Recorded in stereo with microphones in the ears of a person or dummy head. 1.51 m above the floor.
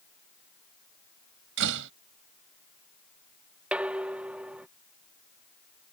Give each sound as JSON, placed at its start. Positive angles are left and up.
{"t": 1.6, "sound": "a door slam", "side_deg": -65}
{"t": 3.7, "sound": "dishes clattering", "side_deg": -5}